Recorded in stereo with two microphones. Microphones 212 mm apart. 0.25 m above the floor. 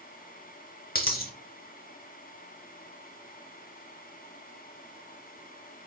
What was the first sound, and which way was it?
A dropped coin, 45° left (ahead or behind).